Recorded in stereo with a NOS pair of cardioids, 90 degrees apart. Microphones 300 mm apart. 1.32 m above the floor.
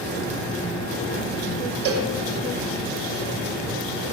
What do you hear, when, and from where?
1.9 s a cowbell: 55° right, 0.8 m